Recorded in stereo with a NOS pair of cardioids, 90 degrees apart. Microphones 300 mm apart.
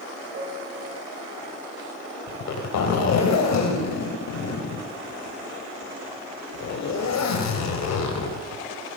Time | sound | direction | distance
0.3 | a piano | 55° right | 8 m
2.3 | a zipper | 65° left | 5.5 m